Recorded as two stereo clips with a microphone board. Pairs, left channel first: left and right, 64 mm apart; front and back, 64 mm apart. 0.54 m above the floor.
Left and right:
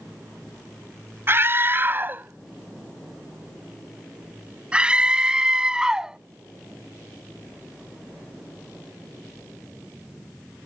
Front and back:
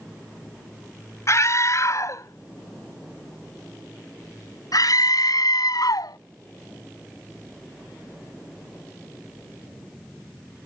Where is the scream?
40° right; by 6.2 s 10° right.